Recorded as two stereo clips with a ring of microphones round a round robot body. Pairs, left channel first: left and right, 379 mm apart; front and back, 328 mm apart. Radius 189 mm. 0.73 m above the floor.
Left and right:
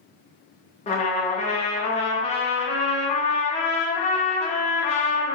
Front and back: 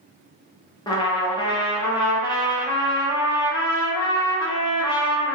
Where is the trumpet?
55° left, 0.7 m.